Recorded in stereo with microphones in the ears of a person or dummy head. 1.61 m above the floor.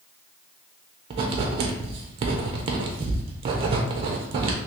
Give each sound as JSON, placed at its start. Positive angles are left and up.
{"t": 1.1, "sound": "writing", "side_deg": -30, "distance_m": 0.6}